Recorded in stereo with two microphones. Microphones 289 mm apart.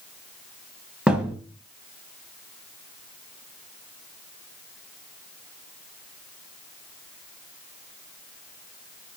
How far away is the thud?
About 1.5 m.